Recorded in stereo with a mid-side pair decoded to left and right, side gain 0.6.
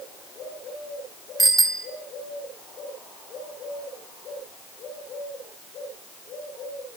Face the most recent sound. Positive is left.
turn(degrees=-15)